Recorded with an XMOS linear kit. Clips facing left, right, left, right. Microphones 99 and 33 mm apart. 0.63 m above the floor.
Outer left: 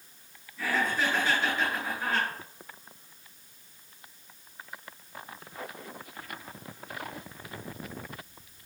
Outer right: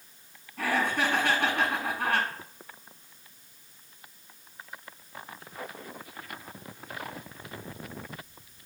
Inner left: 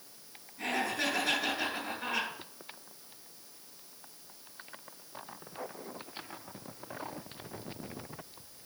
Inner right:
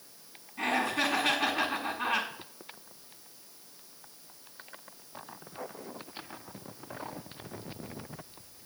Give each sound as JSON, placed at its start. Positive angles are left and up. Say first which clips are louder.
{"t": 0.6, "sound": "laughter", "louder": "outer right 2 dB, inner right 4 dB", "side_deg": -65, "distance_m": 5.5}